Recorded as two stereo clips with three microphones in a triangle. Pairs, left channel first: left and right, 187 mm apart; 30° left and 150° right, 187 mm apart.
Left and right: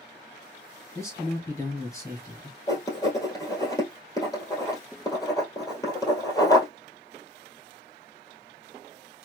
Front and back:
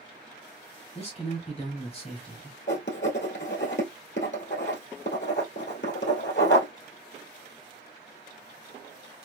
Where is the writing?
15° left, 1.6 m.